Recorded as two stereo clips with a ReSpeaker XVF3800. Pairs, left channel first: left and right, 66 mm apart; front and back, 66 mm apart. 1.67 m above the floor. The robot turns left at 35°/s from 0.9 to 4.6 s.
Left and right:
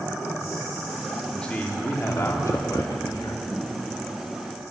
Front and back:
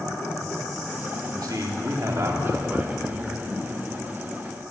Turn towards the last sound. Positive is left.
turn(degrees=55)